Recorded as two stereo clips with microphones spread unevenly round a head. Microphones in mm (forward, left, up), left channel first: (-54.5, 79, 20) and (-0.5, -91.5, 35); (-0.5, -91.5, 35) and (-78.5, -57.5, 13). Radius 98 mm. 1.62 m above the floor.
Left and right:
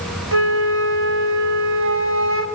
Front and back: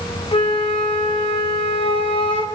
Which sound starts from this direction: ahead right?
A flute, at 0.3 s.